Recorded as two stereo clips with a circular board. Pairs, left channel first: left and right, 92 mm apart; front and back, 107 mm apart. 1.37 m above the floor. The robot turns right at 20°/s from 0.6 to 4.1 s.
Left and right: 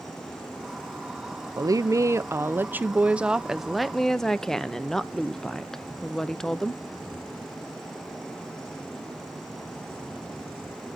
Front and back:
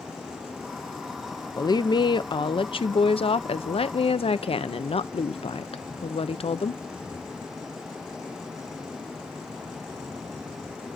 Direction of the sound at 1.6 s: 45° right.